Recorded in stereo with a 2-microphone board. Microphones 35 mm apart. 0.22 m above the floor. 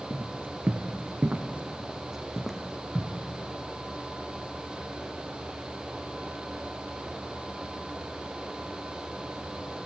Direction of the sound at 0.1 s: 80° right.